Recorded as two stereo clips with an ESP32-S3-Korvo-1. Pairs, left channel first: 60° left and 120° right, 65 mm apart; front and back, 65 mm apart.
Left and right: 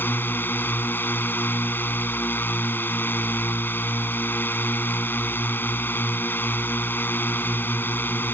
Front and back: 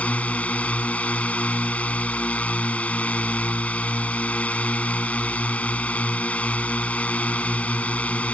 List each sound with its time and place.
0.0 s a drone: 50° left